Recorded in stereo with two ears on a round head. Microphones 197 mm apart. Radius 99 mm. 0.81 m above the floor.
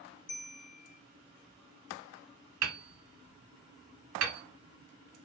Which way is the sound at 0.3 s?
35° left (ahead or behind).